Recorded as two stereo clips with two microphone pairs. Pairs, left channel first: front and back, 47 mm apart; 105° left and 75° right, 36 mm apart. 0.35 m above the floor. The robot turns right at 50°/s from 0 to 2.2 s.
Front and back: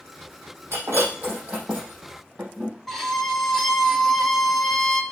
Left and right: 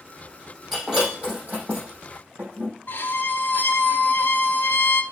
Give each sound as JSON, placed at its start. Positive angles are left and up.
{"t": 0.7, "sound": "breaking glass", "azimuth_deg": -165, "distance_m": 5.0}
{"t": 2.9, "sound": "a violin", "azimuth_deg": 85, "distance_m": 0.8}